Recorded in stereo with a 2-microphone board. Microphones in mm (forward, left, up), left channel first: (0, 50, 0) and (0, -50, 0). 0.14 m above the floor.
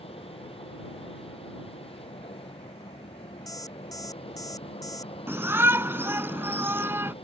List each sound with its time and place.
0.0 s an aircraft: 70° left (ahead or behind)
3.5 s an alarm clock: 35° left (ahead or behind)
5.3 s a shout: 25° right (ahead or behind)